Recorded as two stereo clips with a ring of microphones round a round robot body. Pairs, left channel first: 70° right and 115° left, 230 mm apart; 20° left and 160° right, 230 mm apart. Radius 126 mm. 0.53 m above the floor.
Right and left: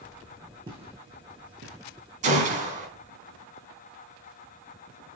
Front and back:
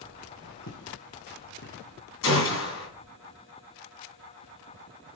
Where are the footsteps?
45° left, 2.5 m; by 2.0 s 70° left, 2 m.